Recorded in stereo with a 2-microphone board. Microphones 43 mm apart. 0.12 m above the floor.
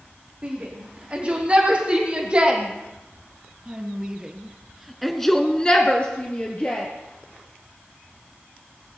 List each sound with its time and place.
0.4 s a shout: 25° right (ahead or behind), 6 m; by 6.9 s 30° left (ahead or behind), 2.5 m